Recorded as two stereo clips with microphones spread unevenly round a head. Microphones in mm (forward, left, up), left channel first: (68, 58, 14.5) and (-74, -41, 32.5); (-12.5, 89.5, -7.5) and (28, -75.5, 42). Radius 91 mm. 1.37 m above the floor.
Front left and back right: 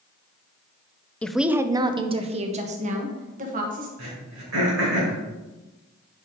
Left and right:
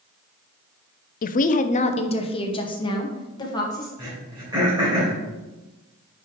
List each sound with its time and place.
1.2 s a woman speaking: 115° left, 0.5 m; by 3.9 s 170° left, 1.9 m
4.0 s throat clearing: 140° right, 3 m